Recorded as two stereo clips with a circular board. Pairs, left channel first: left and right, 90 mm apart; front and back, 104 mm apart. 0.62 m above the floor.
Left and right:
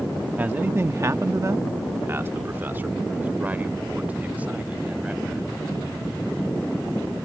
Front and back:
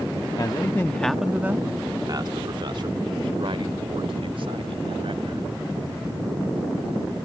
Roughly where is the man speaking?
Ahead right.